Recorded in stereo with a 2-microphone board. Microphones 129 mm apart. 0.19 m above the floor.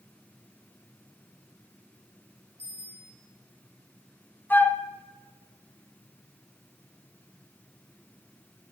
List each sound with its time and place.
2.6 s a bicycle bell: 50° right (ahead or behind), 6 m
4.5 s a flute: 15° left (ahead or behind), 0.8 m